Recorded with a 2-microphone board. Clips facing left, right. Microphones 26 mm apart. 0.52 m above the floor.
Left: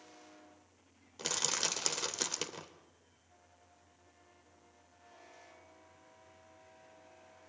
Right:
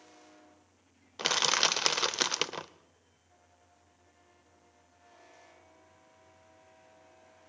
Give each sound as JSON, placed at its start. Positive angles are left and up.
{"t": 1.2, "sound": "crushing", "side_deg": -45, "distance_m": 0.8}